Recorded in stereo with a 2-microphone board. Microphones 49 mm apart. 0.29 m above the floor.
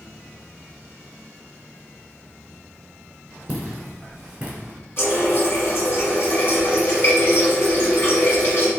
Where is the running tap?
55° left (ahead or behind), 1.7 m.